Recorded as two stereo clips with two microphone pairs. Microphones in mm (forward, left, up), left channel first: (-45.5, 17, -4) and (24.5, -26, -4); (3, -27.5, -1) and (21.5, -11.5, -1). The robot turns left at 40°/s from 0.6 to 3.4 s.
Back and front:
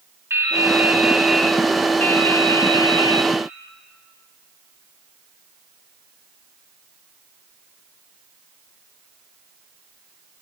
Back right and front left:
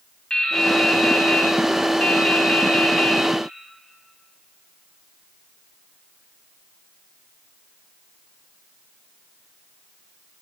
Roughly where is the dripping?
Right.